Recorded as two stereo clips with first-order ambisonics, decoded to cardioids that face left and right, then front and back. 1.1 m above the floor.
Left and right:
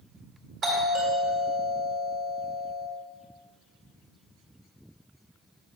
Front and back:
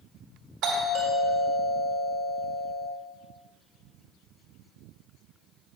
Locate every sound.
0.6 s a doorbell: 140° right, 1.8 m